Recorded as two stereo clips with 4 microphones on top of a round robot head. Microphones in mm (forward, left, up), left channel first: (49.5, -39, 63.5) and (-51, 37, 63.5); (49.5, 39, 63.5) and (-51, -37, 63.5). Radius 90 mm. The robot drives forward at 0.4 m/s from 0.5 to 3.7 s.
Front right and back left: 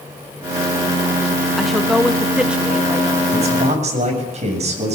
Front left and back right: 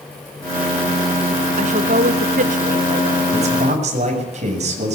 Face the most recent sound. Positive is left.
turn(degrees=180)